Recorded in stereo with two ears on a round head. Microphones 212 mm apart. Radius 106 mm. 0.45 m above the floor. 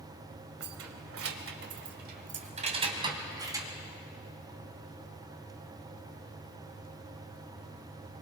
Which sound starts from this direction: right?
Keys jangling, at 0.6 s.